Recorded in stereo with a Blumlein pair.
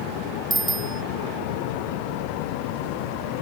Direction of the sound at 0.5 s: 10° right.